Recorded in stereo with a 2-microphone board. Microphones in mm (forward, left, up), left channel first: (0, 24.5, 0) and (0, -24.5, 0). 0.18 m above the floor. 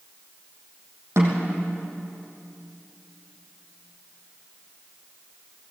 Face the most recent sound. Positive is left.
turn(degrees=-65)  # may be behind; listen again after turning